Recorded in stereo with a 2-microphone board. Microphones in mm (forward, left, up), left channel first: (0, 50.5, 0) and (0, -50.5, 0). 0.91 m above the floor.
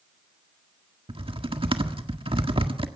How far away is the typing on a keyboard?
About 1.6 m.